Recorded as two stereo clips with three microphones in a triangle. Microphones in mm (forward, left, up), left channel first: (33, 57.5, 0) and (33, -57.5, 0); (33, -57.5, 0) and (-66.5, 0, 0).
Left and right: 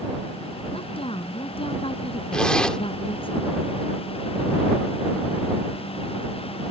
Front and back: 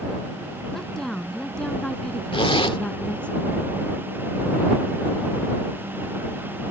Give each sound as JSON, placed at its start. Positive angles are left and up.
{"t": 0.7, "sound": "a woman speaking", "azimuth_deg": 55}
{"t": 2.3, "sound": "a zipper", "azimuth_deg": 5}